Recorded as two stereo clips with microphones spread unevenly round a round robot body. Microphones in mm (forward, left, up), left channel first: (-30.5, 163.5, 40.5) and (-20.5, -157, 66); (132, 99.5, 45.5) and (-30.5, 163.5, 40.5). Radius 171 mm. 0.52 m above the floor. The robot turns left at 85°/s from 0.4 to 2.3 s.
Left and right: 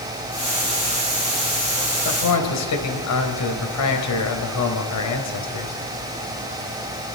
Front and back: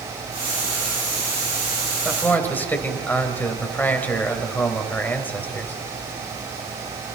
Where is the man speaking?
80° left, 3 m; by 5.8 s 60° left, 3 m.